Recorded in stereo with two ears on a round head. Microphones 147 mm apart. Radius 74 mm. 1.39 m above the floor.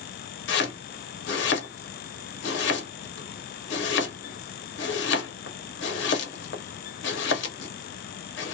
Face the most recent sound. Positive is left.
turn(degrees=70)  # may be behind; listen again after turning